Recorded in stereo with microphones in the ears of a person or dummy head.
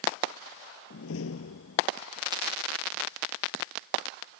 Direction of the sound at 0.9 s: 85° left.